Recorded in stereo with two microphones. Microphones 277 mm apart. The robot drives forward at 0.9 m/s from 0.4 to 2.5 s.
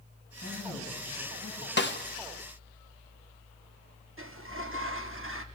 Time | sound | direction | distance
0.4 | a woman speaking | 80° right | 8 m
1.8 | a snare drum | 40° left (ahead or behind) | 1.1 m
4.2 | a sliding door | 50° right (ahead or behind) | 1.0 m